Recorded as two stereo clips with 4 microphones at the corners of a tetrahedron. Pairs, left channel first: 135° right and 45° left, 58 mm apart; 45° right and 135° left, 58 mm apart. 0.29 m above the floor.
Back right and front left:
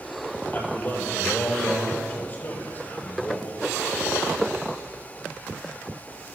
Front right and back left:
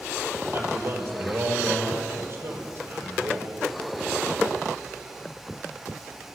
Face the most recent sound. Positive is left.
turn(degrees=175)